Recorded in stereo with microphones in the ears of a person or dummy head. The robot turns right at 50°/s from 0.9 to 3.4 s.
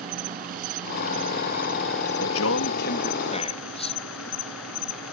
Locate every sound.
0.0 s an insect: 40° right; by 5.1 s 85° left
2.2 s a man speaking: 95° left; by 4.0 s 155° left